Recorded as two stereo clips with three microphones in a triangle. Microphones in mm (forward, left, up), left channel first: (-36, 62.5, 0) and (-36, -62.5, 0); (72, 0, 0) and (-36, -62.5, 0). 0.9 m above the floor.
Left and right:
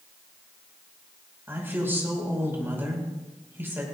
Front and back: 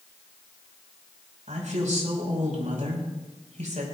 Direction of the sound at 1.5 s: 160° right.